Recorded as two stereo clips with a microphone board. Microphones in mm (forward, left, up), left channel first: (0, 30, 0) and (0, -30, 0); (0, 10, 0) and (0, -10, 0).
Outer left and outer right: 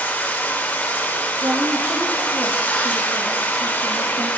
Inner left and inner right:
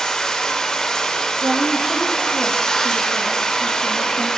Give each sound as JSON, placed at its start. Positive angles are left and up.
{"t": 0.0, "sound": "running water", "side_deg": 30, "distance_m": 1.5}
{"t": 1.4, "sound": "a woman speaking", "side_deg": -70, "distance_m": 2.0}